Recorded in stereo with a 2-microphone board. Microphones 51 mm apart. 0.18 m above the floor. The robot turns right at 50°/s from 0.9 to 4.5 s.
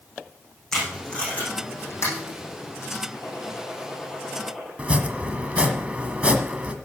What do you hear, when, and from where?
0.7 s tape being pulled: 5° left (ahead or behind), 7 m; by 3.0 s 70° left (ahead or behind), 7 m
3.1 s a gunshot: 115° left, 6.5 m; by 4.7 s 175° right, 6.5 m
4.8 s chopping: 25° right (ahead or behind), 1.2 m